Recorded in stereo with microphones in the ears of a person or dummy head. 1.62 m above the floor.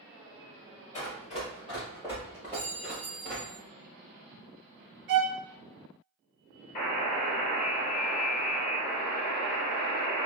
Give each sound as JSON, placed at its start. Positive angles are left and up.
{"t": 0.9, "sound": "running footsteps", "side_deg": 30, "distance_m": 1.9}
{"t": 2.5, "sound": "a clink", "side_deg": -25, "distance_m": 0.8}
{"t": 5.1, "sound": "a violin", "side_deg": -55, "distance_m": 0.8}
{"t": 6.8, "sound": "a buzzer", "side_deg": 35, "distance_m": 1.2}